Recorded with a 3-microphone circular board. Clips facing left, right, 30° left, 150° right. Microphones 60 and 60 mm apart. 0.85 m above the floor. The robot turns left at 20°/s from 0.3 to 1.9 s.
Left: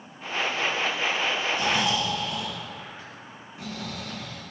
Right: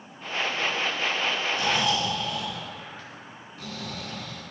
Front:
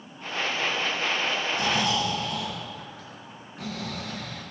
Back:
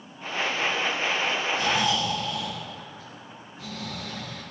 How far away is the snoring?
About 4 m.